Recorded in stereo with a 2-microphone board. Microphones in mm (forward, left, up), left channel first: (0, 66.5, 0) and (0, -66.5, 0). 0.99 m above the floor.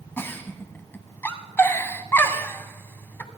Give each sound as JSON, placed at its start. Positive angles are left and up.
{"t": 0.2, "sound": "a giggle", "side_deg": 15, "distance_m": 1.1}